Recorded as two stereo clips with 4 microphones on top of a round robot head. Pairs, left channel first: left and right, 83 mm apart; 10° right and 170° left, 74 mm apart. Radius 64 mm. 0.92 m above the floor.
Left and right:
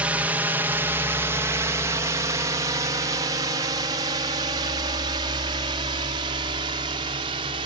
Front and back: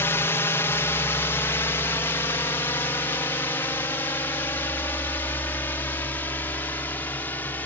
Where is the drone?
30° right; by 7.7 s 80° right.